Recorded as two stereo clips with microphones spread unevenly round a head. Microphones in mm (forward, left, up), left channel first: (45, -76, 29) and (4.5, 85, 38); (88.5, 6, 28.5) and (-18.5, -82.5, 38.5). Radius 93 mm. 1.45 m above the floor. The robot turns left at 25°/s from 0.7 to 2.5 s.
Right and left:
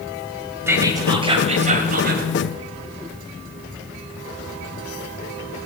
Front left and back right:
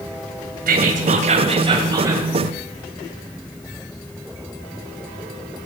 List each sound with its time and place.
0.7 s whispering: straight behind, 2.0 m; by 2.2 s 145° left, 2.0 m